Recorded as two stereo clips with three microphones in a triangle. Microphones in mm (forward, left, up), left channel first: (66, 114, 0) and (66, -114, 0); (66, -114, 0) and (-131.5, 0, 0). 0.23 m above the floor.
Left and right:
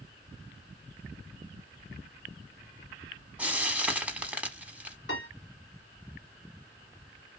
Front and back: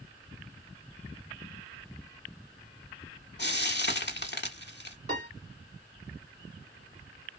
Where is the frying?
5° right, 0.7 m.